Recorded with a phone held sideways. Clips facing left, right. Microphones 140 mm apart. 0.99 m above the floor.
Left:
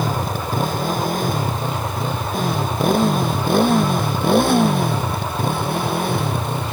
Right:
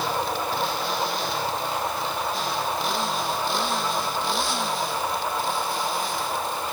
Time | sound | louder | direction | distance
0.0 | a motorcycle | left 3 dB | 50° left (ahead or behind) | ?